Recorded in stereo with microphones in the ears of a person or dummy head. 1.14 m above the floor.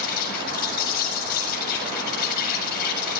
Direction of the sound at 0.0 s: 55° left (ahead or behind).